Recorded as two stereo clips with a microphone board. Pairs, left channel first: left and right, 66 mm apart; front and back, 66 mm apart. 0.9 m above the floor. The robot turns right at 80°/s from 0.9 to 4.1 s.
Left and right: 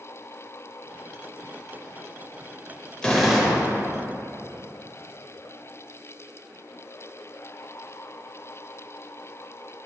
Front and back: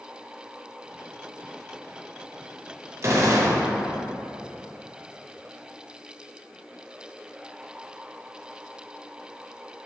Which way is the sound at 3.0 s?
160° left.